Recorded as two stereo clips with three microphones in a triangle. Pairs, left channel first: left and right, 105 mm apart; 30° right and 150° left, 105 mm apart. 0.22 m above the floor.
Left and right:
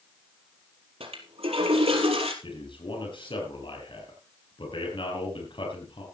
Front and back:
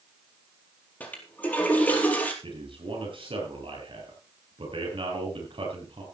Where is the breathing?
I don't hear breathing.